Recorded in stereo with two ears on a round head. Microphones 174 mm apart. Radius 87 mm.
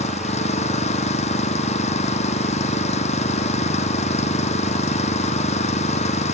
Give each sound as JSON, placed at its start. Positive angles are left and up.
{"t": 0.0, "sound": "an engine running", "side_deg": 35}